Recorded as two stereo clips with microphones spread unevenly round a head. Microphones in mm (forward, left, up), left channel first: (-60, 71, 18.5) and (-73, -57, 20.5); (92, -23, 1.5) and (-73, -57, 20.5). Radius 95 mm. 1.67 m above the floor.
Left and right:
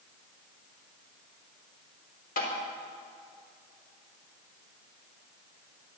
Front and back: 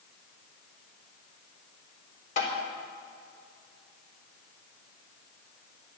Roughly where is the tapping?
Left.